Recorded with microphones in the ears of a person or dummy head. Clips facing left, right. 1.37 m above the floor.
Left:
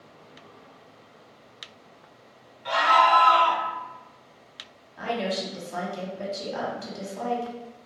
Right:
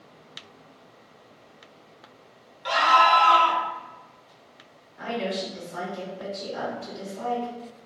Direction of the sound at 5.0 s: 80° left.